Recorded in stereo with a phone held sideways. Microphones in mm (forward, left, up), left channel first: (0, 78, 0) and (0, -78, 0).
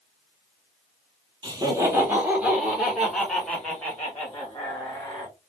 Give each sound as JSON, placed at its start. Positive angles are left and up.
{"t": 1.4, "sound": "laughter", "side_deg": -25, "distance_m": 1.5}